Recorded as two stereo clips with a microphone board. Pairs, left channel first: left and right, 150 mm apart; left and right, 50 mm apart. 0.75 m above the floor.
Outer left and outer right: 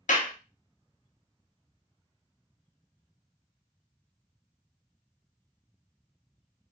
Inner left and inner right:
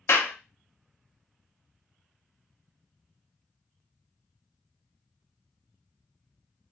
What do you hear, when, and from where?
0.1 s a clap: 55° left (ahead or behind), 0.6 m